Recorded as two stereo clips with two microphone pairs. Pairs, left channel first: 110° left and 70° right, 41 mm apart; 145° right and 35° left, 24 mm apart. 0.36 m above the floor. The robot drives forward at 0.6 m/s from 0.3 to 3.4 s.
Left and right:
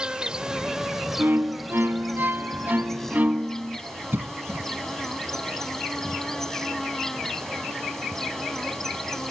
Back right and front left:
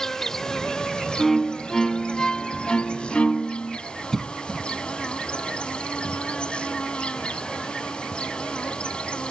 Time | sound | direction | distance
0.0 | an insect | 105° right | ?
1.2 | a violin | 55° right | ?
4.1 | a cough | 65° right | ?